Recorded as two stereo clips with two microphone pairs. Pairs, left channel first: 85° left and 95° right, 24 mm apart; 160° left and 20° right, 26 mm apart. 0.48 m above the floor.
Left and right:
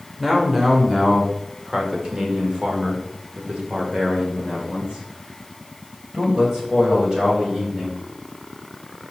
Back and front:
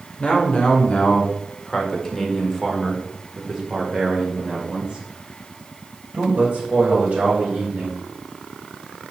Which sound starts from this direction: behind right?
A man speaking, at 0.2 s.